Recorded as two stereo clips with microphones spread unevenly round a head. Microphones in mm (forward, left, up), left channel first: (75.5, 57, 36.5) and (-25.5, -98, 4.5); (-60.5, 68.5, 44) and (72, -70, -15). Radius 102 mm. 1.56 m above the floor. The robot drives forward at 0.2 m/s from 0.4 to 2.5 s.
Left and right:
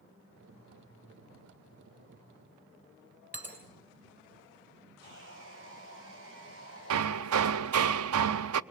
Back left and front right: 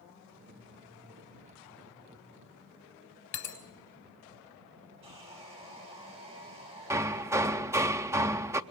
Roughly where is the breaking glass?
Behind left.